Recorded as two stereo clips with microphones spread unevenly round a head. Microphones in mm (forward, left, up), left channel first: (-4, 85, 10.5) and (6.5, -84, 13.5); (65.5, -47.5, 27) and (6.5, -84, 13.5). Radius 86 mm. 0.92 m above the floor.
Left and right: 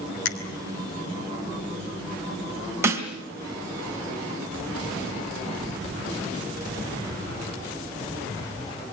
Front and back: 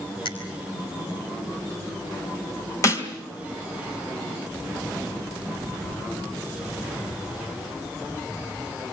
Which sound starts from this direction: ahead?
A snare drum, at 2.8 s.